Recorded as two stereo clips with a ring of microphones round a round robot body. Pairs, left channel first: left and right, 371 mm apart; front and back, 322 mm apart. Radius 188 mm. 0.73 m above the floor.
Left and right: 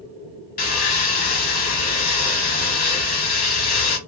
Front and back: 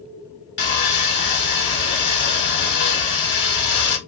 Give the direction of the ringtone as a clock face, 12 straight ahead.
No ringtone in this recording.